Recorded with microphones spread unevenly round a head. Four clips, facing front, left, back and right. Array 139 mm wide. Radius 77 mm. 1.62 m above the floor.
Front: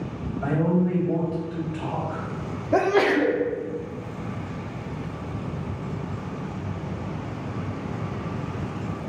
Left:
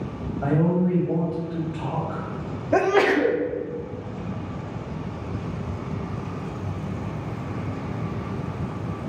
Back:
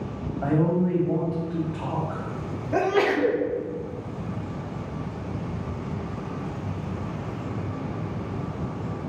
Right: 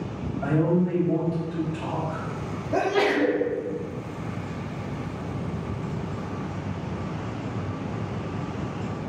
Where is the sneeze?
45° left, 0.5 m.